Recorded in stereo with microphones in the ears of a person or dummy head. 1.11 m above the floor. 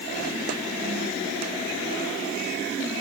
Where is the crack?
No crack in this recording.